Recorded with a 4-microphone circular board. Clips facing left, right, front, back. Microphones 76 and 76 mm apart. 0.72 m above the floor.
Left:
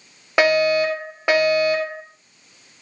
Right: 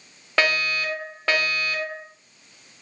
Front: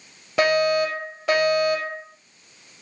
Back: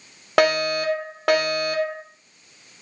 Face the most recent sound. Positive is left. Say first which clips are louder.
# left 8 dB, even
turn(degrees=160)